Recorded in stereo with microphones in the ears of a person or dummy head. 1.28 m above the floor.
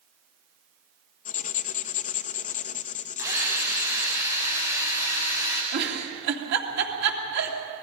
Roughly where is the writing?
Left.